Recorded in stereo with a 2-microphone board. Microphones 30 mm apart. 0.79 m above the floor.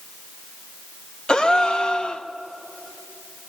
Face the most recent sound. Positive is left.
turn(degrees=25)  # may be behind; listen again after turning